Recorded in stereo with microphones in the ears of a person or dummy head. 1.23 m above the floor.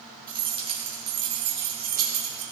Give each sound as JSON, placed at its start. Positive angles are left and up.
{"t": 0.3, "sound": "keys jangling", "side_deg": -25, "distance_m": 1.8}